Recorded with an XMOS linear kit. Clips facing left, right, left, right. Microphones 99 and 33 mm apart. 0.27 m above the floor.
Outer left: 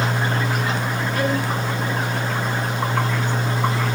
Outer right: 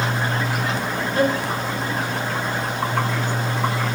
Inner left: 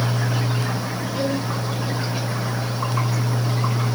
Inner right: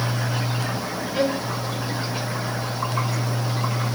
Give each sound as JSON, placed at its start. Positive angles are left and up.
{"t": 1.1, "sound": "a violin", "side_deg": -30, "distance_m": 3.0}